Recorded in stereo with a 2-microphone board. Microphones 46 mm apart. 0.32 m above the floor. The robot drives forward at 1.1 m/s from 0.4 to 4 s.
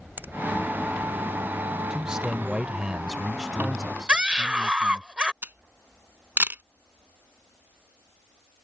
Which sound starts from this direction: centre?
A man speaking, at 1.9 s.